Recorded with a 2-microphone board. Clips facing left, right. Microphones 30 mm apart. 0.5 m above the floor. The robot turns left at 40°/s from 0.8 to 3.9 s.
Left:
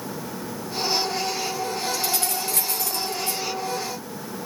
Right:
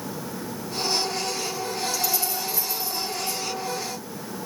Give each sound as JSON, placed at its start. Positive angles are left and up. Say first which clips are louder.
{"t": 1.9, "sound": "keys jangling", "louder": "left 1 dB", "side_deg": 55, "distance_m": 3.0}